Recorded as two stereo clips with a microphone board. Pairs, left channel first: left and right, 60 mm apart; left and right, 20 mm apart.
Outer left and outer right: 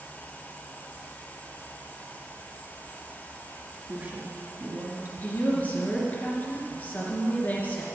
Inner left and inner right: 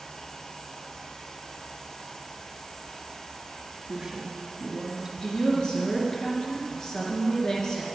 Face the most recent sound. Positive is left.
turn(degrees=25)  # may be behind; listen again after turning